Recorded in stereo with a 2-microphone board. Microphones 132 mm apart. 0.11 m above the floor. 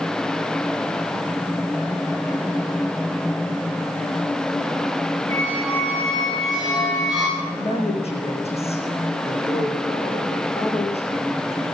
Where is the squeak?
Centre (ahead or behind), 9 m.